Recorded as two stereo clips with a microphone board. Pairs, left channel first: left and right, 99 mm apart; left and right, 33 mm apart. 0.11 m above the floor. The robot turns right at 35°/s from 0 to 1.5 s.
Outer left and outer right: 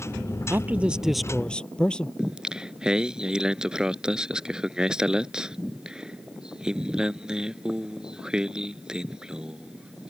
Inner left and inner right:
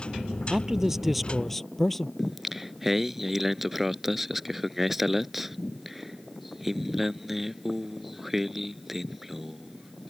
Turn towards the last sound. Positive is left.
turn(degrees=-10)  # may be behind; listen again after turning